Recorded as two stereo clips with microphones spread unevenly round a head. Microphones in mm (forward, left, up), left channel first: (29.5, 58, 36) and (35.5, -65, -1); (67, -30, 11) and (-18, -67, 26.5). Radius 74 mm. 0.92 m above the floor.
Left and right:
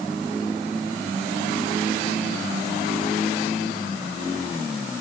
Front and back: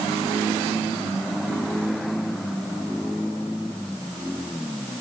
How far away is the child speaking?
I don't hear a child speaking.